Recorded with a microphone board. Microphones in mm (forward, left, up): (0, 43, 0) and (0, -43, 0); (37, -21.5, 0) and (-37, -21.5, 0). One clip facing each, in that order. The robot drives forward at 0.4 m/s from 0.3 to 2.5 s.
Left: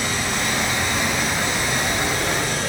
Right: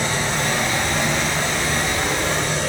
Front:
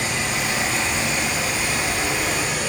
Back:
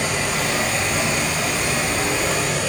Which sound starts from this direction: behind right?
Running water, at 0.0 s.